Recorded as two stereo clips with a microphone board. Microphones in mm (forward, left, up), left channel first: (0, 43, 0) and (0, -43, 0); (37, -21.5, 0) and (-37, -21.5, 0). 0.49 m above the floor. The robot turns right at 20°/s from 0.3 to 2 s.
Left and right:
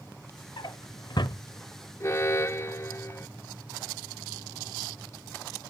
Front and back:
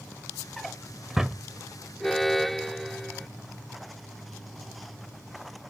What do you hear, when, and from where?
0.6 s a drawer: 85° left; by 1.4 s 100° left
2.0 s an alarm: 85° left